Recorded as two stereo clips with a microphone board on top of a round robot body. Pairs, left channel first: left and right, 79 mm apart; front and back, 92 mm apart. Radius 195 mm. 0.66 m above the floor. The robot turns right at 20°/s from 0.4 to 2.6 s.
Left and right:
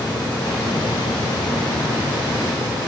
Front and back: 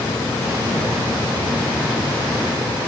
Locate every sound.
Only background noise.